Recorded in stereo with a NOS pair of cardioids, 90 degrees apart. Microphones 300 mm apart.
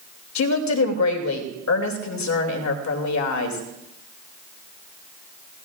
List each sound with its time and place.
0.3 s a woman speaking: 65° left, 2.5 m